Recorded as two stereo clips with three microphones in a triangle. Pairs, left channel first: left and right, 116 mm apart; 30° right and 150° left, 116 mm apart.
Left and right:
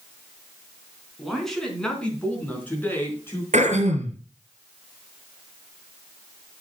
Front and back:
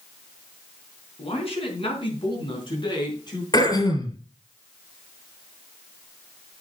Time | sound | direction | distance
1.2 | a man speaking | straight ahead | 4 m
3.5 | throat clearing | 85° right | 3 m